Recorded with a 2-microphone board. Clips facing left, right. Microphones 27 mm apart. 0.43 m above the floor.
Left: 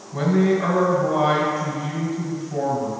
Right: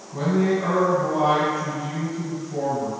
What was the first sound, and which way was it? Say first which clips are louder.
A man speaking: left 2 dB; 45° left (ahead or behind).